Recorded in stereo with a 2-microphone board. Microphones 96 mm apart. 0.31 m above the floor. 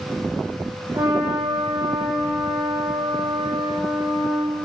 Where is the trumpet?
35° right (ahead or behind), 5.5 m.